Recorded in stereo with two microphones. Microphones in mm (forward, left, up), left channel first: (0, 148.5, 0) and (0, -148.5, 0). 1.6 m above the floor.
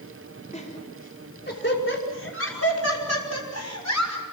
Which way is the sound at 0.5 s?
25° left (ahead or behind).